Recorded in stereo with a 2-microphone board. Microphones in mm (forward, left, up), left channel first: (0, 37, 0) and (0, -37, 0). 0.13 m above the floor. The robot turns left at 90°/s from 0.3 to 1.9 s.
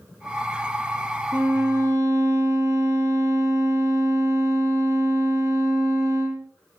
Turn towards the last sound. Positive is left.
turn(degrees=-80)